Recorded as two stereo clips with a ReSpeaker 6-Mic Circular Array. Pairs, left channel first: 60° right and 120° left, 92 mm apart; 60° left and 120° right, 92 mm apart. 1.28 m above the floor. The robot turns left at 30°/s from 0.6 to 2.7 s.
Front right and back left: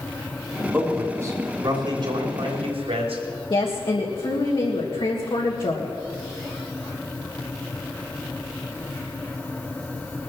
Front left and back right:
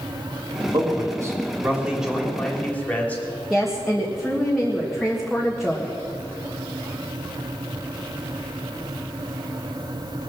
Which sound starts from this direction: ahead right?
A woman speaking, at 3.5 s.